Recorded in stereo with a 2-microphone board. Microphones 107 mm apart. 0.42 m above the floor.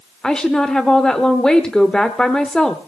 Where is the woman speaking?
5° left (ahead or behind), 0.9 m.